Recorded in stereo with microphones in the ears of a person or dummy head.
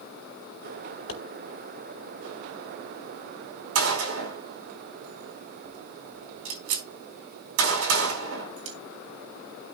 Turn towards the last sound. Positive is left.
turn(degrees=-85)